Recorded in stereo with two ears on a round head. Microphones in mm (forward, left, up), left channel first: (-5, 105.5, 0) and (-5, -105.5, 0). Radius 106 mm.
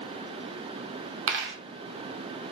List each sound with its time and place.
1.3 s a dropped coin: 55° right (ahead or behind), 0.8 m